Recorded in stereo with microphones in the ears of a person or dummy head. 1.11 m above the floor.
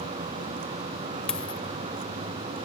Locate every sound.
0.0 s a vehicle: 30° right (ahead or behind)
1.3 s a dropped coin: centre (ahead or behind)